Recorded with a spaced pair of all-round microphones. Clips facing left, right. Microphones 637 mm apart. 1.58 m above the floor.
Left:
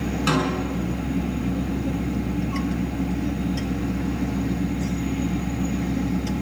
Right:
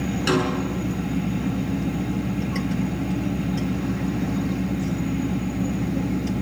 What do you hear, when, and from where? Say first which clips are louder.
0.3 s a snare drum: right 2 dB; 35° left (ahead or behind), 6 m